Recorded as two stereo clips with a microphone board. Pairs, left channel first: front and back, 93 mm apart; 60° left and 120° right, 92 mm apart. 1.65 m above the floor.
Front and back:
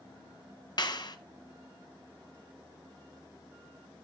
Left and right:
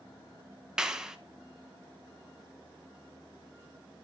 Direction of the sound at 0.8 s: 35° right.